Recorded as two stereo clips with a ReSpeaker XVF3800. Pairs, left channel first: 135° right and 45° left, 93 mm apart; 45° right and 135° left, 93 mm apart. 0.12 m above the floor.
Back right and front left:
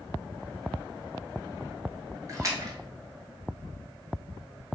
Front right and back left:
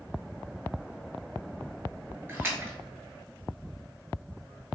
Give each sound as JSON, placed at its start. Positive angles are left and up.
{"t": 2.3, "sound": "a splash", "azimuth_deg": 80, "distance_m": 0.8}